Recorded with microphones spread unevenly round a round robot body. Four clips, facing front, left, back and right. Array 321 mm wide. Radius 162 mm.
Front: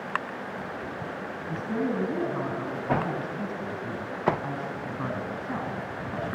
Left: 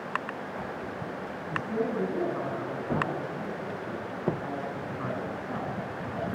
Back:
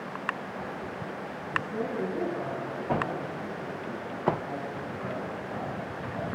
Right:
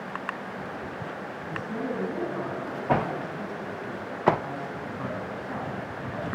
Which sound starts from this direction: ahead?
A woman speaking, at 1.5 s.